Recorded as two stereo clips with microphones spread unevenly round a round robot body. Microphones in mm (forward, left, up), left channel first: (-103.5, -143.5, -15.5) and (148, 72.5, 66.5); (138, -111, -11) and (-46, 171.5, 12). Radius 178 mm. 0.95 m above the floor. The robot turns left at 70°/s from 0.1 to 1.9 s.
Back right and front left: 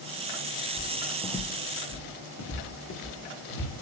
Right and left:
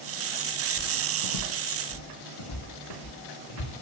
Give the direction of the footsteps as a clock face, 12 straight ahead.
1 o'clock.